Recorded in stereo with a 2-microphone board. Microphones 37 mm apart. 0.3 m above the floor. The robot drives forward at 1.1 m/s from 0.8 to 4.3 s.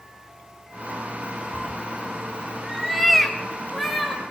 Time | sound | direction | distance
1.5 | a cat meowing | 10° right (ahead or behind) | 0.5 m